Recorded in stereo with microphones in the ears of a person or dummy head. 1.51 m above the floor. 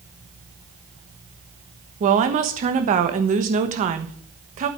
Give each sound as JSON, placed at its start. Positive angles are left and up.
{"t": 2.0, "sound": "a woman speaking", "side_deg": -40, "distance_m": 1.3}